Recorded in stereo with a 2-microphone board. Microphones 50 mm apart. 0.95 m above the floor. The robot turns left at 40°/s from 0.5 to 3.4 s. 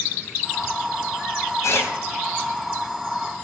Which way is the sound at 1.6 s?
80° left.